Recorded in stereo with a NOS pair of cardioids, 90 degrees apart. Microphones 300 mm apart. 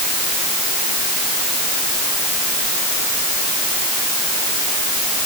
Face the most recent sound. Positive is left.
No sound to turn to.